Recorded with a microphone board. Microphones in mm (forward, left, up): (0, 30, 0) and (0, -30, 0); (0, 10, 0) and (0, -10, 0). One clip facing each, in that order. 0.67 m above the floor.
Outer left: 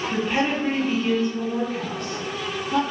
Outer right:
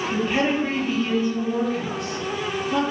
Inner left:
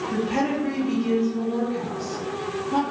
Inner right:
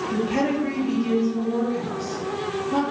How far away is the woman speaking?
About 0.6 m.